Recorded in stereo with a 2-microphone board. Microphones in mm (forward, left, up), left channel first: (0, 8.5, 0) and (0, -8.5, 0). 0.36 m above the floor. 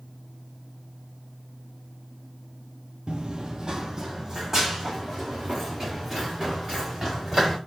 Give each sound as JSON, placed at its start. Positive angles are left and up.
{"t": 3.1, "sound": "running footsteps", "side_deg": -55, "distance_m": 0.5}